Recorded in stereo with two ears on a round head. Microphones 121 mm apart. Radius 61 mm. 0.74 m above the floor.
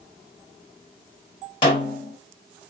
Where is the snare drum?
35° left (ahead or behind), 4 m.